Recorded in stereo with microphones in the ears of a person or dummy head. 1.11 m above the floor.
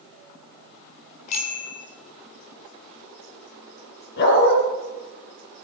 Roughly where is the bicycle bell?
Left.